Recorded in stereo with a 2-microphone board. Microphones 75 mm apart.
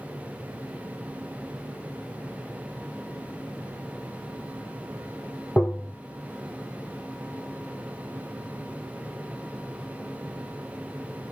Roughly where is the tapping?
Centre.